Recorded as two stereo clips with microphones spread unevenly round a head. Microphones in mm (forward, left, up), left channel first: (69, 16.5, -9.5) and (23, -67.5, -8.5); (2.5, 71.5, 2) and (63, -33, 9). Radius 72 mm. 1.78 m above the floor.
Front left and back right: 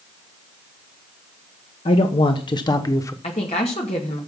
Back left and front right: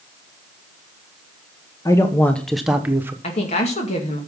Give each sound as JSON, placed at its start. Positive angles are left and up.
{"t": 1.9, "sound": "a man speaking", "azimuth_deg": 60, "distance_m": 1.1}
{"t": 3.2, "sound": "a woman speaking", "azimuth_deg": 95, "distance_m": 2.0}